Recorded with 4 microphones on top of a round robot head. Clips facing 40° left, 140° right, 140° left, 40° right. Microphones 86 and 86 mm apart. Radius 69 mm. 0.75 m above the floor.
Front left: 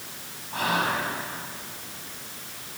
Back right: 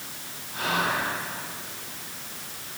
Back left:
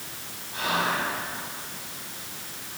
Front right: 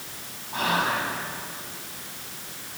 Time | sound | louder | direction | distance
0.5 | whispering | front left 1 dB, front right 2 dB | 5° left | 7 m